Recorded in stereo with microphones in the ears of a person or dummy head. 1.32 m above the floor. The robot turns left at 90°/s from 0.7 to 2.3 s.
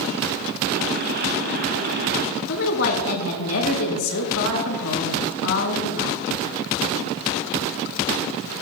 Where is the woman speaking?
85° left, 4.5 m.